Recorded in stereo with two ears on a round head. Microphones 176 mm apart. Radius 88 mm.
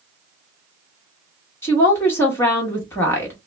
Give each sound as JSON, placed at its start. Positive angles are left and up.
{"t": 1.6, "sound": "a woman speaking", "side_deg": 15, "distance_m": 1.1}